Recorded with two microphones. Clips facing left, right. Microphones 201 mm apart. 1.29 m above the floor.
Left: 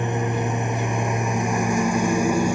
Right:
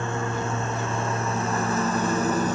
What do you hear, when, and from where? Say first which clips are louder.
0.0 s a lawn mower: left 4 dB; 15° left (ahead or behind); by 2.6 s 10° left (ahead or behind)